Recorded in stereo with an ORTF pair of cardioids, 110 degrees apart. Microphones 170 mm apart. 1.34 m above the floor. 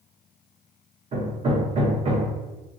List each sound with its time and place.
1.1 s hammering: 40° right, 0.9 m